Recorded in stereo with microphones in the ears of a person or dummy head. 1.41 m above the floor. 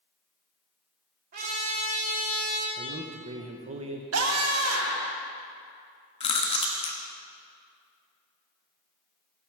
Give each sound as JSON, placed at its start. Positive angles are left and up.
{"t": 1.3, "sound": "a trumpet", "side_deg": -55, "distance_m": 4.0}
{"t": 2.8, "sound": "a man speaking", "side_deg": -35, "distance_m": 1.0}
{"t": 4.1, "sound": "a scream", "side_deg": -75, "distance_m": 1.7}
{"t": 6.2, "sound": "chewing", "side_deg": 30, "distance_m": 1.4}